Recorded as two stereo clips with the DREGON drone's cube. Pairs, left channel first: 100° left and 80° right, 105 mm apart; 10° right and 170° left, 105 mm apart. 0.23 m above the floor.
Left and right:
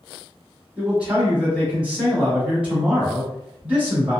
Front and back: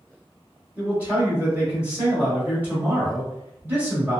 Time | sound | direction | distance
0.8 | a man speaking | 140° right | 1.0 m